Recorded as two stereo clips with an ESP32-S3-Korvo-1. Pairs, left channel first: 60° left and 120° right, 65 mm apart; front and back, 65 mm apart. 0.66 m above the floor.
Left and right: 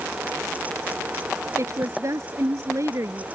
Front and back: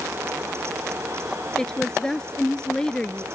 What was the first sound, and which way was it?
A woman speaking, 80° right.